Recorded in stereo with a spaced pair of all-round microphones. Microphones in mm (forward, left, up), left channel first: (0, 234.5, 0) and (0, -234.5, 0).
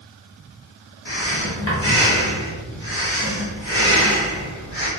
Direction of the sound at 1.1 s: 65° left (ahead or behind).